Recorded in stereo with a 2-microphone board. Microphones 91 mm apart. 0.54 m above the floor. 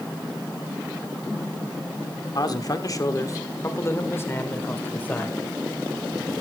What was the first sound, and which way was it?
A man speaking, 50° left (ahead or behind).